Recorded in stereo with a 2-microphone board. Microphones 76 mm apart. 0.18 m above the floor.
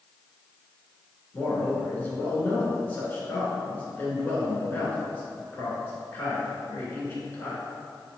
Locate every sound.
1.3 s a man speaking: 25° left (ahead or behind), 1.9 m